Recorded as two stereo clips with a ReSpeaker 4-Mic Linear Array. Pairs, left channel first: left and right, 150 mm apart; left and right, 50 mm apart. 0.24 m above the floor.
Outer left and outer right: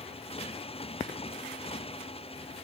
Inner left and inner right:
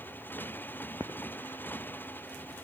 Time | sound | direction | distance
0.0 | a motorcycle | 40° left (ahead or behind) | ?